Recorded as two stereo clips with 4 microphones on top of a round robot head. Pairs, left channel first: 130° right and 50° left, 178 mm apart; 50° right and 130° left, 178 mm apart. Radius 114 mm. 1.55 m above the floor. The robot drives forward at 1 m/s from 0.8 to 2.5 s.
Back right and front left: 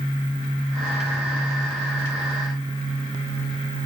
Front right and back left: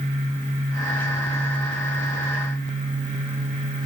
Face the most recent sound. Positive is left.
No sound to turn to.